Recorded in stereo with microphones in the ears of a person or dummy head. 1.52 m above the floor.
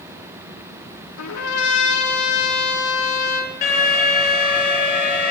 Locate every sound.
1.2 s a trumpet: 90° left, 2.5 m
3.6 s an alarm: 35° left (ahead or behind), 9.5 m